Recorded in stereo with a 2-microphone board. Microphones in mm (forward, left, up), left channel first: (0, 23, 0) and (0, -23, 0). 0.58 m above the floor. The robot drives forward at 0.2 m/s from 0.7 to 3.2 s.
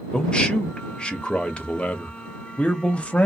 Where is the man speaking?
20° left (ahead or behind), 0.9 m; by 3.3 s 25° left (ahead or behind), 0.7 m.